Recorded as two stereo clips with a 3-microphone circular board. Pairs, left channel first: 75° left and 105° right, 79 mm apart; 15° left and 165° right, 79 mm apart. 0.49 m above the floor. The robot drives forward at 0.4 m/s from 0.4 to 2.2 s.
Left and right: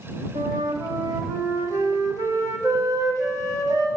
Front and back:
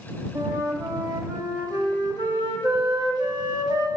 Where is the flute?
120° right, 0.9 m; by 3.9 s 145° right, 1.4 m.